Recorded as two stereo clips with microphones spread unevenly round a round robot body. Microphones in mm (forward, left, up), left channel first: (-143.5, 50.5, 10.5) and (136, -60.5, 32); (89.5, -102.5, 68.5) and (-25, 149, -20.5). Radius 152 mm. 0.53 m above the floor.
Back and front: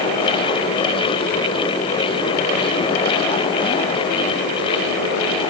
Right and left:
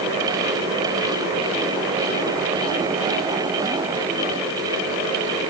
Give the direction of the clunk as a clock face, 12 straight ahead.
I don't hear a clunk.